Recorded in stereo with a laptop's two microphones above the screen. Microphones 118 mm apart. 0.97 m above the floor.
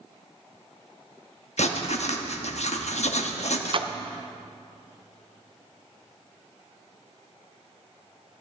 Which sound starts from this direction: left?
Writing, at 1.6 s.